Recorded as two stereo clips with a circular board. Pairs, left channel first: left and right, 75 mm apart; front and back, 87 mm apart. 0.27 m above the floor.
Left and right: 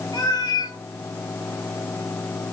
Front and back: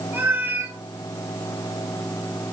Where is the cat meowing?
115° left, 1.5 m.